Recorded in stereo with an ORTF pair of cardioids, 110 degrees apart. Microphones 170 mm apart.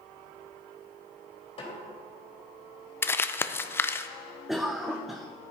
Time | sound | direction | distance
1.6 | a snare drum | 30° left | 3.5 m
3.0 | crumpling | 15° left | 0.5 m
4.5 | a cough | straight ahead | 0.5 m